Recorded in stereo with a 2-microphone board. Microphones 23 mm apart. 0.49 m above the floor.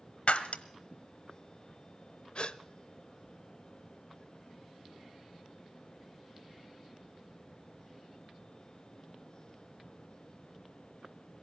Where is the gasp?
55° left (ahead or behind), 0.6 m.